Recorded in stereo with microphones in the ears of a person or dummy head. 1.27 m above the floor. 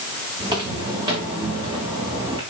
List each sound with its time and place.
0.4 s footsteps: 30° right (ahead or behind), 7.5 m